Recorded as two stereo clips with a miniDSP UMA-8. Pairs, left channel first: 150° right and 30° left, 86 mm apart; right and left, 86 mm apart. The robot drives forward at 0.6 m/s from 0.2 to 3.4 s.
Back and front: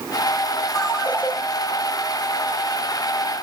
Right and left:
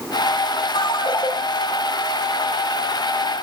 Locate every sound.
0.8 s a ringtone: 70° right, 1.7 m; by 1.3 s 85° right, 1.6 m